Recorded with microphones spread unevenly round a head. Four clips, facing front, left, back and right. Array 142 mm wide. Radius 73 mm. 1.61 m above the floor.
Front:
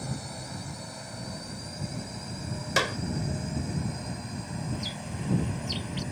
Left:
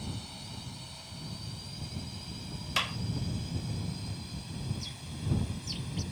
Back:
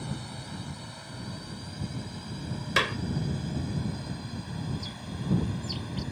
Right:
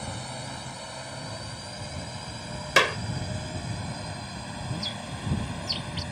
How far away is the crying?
I don't hear crying.